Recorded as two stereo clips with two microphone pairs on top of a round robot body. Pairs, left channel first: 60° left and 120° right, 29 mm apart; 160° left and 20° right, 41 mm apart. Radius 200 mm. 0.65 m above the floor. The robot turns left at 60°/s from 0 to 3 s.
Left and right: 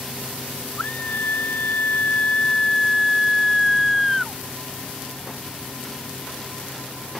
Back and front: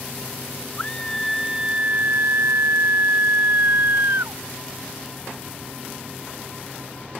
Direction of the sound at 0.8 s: 100° left.